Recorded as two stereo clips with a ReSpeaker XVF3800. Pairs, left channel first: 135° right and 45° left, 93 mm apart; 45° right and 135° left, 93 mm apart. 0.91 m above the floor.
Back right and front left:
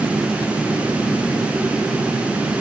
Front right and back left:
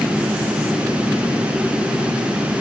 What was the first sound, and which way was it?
Only background noise.